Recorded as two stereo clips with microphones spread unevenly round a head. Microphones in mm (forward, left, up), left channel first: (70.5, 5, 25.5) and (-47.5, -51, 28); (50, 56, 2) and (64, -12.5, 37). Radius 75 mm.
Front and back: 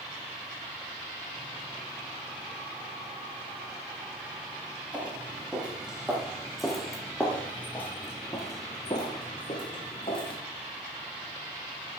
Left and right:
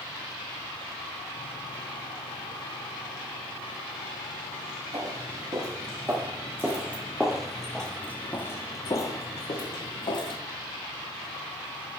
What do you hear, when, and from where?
4.9 s footsteps: 75° right, 2 m; by 10.4 s 80° left, 1.6 m